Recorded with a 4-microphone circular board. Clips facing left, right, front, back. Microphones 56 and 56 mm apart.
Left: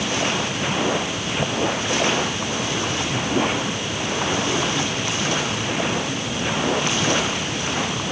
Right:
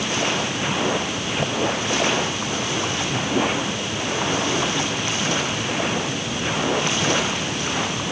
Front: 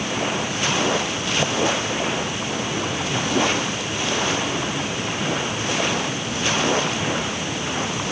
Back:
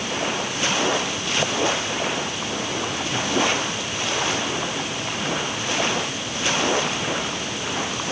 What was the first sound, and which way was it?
Only background noise.